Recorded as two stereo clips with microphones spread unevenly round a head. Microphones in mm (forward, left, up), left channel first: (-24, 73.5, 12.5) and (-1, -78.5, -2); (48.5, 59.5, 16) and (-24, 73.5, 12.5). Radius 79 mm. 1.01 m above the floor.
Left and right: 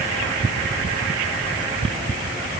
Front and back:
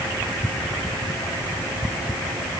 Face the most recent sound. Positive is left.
No sound to turn to.